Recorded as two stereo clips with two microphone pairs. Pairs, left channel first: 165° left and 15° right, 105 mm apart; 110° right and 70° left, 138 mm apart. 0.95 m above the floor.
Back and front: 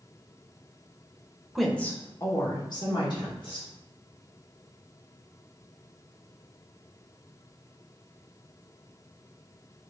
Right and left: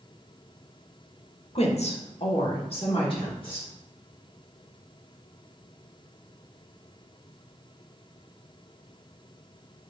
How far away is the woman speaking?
About 0.7 m.